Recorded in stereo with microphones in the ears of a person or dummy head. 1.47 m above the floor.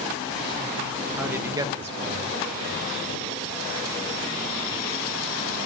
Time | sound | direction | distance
1.2 | a man speaking | 5° right (ahead or behind) | 1.4 m